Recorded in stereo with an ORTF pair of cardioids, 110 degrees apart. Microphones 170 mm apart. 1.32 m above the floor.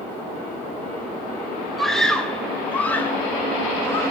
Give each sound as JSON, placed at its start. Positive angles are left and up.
{"t": 1.8, "sound": "a scream", "azimuth_deg": 0, "distance_m": 1.8}